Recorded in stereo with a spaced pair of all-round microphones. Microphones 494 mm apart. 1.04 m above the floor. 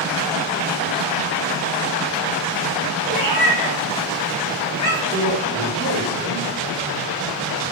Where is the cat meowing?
35° right (ahead or behind), 1.0 m; by 5.0 s 75° right (ahead or behind), 1.5 m.